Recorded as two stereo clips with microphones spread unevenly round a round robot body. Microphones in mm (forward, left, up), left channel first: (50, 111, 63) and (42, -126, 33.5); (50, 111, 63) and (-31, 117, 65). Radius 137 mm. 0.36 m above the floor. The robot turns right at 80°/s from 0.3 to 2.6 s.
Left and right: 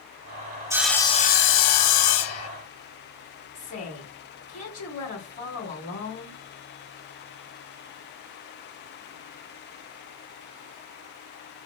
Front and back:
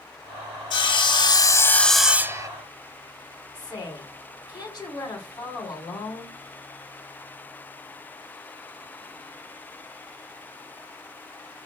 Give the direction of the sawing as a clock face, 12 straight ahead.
1 o'clock.